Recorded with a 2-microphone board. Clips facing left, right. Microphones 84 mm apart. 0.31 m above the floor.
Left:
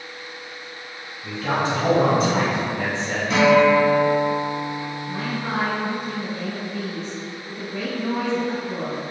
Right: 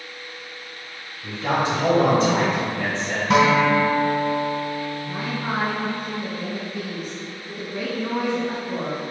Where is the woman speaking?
15° right (ahead or behind), 1.4 m.